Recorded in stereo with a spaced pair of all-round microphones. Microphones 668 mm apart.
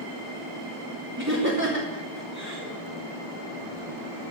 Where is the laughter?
25° right (ahead or behind), 2.5 m.